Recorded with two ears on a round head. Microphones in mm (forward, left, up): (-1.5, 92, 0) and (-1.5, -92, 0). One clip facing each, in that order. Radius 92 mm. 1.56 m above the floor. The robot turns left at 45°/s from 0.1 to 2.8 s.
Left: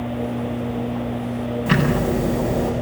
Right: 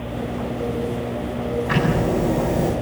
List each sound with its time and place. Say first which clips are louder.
1.7 s ticking: left 2 dB; 40° left, 8 m; by 2.7 s 10° right, 8 m